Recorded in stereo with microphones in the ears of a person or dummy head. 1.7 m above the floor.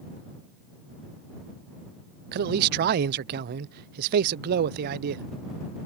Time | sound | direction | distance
2.3 | a man speaking | 55° right (ahead or behind) | ?